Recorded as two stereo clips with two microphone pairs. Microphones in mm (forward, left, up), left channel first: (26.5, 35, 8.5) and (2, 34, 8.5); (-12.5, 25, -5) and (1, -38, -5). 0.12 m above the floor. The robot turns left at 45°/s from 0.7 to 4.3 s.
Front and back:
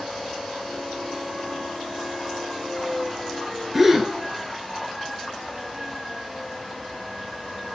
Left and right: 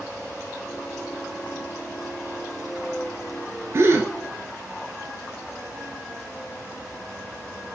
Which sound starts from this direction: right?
A gasp, at 3.7 s.